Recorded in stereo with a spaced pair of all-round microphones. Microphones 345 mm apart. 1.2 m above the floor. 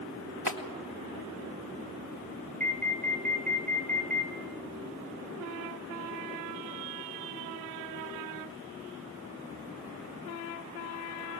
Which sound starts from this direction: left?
A clap, at 0.5 s.